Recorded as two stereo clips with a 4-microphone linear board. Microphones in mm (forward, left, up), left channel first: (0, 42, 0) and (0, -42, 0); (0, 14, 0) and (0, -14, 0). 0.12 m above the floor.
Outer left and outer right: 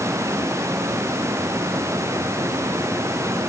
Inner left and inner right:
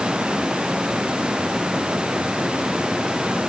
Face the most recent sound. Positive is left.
No sound to turn to.